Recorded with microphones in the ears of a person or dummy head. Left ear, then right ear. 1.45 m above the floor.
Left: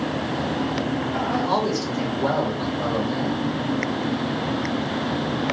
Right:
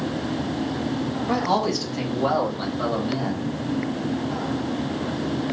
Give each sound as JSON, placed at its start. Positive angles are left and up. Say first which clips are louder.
{"t": 1.3, "sound": "a man speaking", "louder": "right 2 dB", "side_deg": -70, "distance_m": 1.6}